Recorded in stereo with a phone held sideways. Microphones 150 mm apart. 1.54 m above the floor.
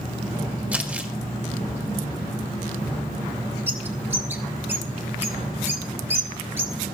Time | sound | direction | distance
0.7 | crumpling | 10° right (ahead or behind) | 1.4 m
3.7 | a bird | 15° right (ahead or behind) | 1.4 m